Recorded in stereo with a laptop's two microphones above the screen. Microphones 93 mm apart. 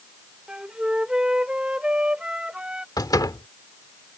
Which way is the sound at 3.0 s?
45° left (ahead or behind).